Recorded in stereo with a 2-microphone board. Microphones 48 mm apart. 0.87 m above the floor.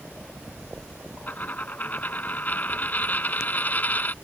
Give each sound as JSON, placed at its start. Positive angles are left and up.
{"t": 1.3, "sound": "a dropped coin", "side_deg": 35}